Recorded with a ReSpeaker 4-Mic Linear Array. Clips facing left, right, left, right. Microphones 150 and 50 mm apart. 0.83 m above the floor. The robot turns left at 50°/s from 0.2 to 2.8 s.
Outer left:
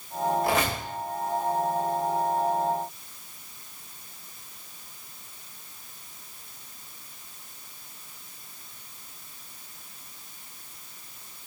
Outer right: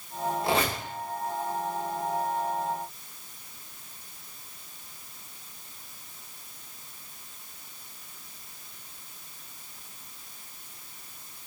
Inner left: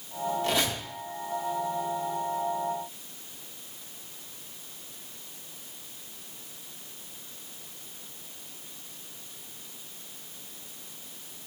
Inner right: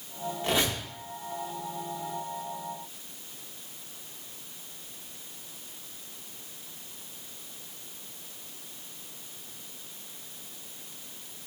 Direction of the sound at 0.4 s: 25° right (ahead or behind).